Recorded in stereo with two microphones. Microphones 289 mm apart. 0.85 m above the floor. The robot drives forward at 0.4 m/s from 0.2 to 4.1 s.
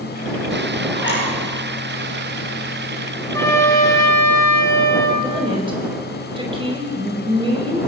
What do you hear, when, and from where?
0.9 s a zipper: 40° left (ahead or behind), 8.5 m
3.3 s a trumpet: 10° left (ahead or behind), 4.5 m
5.2 s a woman speaking: 20° right (ahead or behind), 4.5 m